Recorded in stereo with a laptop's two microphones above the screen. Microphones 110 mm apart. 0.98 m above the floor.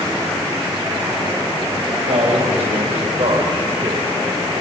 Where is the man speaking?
70° right (ahead or behind), 6 m; by 4.1 s 65° right (ahead or behind), 4 m.